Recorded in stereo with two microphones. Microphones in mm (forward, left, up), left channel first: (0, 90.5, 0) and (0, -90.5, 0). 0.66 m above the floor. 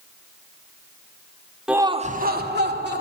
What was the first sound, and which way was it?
Laughter, 5° right (ahead or behind).